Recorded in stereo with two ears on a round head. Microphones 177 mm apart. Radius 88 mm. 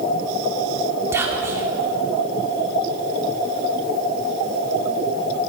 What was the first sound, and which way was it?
Whispering, 15° right (ahead or behind).